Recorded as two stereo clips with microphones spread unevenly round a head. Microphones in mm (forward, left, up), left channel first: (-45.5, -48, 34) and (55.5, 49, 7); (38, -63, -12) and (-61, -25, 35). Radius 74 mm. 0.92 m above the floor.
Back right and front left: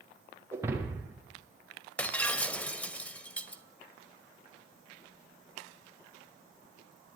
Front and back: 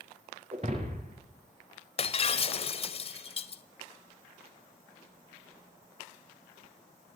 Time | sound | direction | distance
0.5 | breaking glass | 120° left | 5 m
2.0 | breaking glass | 60° right | 1.7 m